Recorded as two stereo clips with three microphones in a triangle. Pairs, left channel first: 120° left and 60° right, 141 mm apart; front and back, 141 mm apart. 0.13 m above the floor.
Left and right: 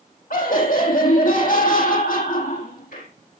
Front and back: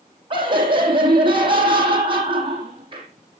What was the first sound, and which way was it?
Laughter, 130° left.